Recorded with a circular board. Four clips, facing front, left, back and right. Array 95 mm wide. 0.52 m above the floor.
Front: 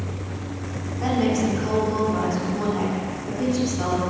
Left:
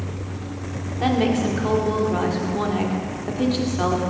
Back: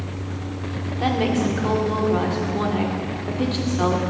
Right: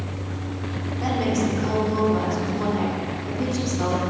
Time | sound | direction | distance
1.0 | a woman speaking | 130° left | 1.6 m